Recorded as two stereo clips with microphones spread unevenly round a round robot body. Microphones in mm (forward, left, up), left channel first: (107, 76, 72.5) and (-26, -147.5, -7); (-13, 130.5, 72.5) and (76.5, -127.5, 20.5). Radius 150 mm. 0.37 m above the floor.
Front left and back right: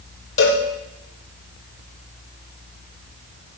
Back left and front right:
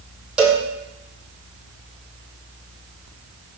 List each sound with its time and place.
0.4 s a cowbell: 15° left, 6.5 m